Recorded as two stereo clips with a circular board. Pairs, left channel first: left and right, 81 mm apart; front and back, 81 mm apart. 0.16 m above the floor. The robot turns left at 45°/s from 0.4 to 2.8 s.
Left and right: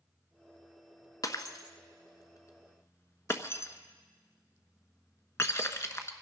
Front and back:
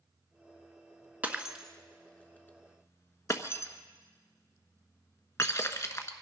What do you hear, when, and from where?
1.2 s breaking glass: 115° left, 1.1 m; by 6.1 s 45° left, 1.1 m